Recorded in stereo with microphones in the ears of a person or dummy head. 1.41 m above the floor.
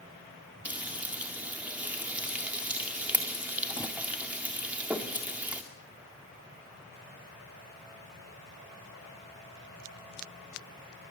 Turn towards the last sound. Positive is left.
turn(degrees=-5)  # may be behind; listen again after turning